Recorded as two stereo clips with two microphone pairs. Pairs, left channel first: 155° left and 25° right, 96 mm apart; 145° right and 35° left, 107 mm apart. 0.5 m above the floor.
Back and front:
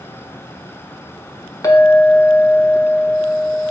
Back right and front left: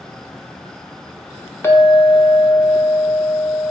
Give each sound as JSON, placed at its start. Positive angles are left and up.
{"t": 1.6, "sound": "a clink", "azimuth_deg": 170, "distance_m": 0.6}